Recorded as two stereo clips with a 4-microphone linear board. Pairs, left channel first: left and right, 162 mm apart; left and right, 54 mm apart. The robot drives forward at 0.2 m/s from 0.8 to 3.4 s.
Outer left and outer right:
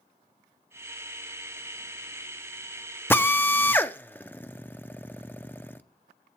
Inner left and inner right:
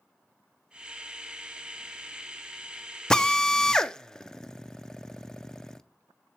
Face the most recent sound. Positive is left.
turn(degrees=10)  # may be behind; listen again after turning